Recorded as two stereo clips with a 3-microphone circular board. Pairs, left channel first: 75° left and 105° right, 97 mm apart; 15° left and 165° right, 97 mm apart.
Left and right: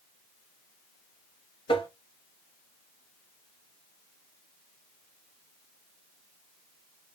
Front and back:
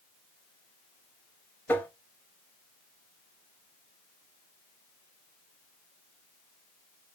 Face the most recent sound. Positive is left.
turn(degrees=85)